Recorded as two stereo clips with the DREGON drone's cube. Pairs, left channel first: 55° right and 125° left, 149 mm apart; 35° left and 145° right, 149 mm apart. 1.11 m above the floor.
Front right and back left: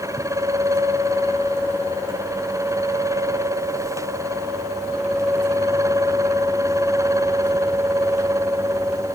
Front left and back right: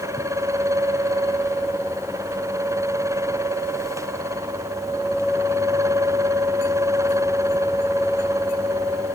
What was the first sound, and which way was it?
Only background noise.